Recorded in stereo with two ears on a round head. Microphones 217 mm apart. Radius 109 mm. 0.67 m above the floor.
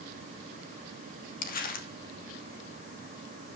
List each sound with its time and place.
1.4 s crumpling: 35° left (ahead or behind), 1.4 m